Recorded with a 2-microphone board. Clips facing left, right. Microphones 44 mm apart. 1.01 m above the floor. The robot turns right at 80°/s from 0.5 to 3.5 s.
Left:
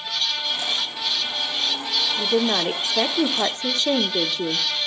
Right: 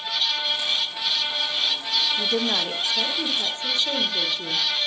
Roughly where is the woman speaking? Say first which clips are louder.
Left 3 dB; ahead.